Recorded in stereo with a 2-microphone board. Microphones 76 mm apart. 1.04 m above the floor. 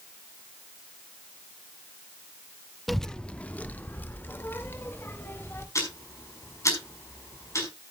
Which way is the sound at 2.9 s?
Centre (ahead or behind).